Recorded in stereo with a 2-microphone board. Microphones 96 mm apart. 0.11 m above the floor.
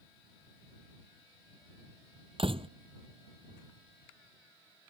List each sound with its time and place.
2.4 s a door slam: 65° right (ahead or behind)